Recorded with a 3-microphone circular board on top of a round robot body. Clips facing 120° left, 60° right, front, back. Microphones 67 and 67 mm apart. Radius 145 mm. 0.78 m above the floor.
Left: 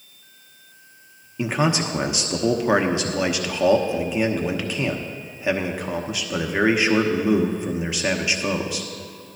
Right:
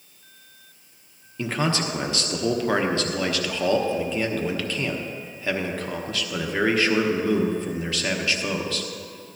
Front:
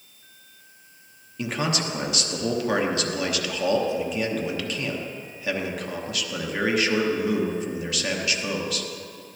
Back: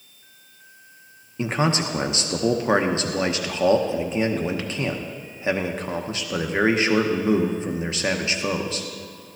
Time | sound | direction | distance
1.4 | a man speaking | 175° left | 1.1 m